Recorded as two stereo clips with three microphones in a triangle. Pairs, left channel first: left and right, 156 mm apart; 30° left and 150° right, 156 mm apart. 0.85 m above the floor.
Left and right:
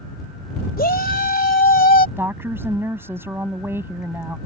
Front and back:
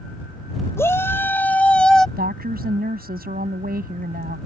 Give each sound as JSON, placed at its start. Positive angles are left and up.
{"t": 0.8, "sound": "a shout", "azimuth_deg": 105}
{"t": 2.2, "sound": "a woman speaking", "azimuth_deg": -165}